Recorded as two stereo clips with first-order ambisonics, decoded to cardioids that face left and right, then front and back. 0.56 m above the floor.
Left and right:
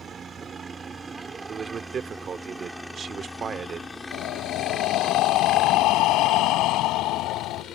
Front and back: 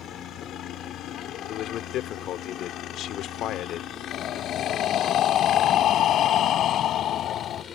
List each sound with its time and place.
0.0 s a helicopter: 35° right; by 7.7 s 55° left
1.5 s a man speaking: 35° right
4.1 s breathing: 55° left